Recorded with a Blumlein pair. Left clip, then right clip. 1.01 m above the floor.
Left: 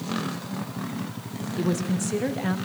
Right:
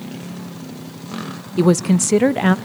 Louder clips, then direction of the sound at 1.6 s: Right 12 dB; 35° right.